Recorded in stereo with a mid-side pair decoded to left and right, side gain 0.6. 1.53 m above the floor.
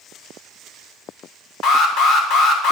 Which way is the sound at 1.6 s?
60° left.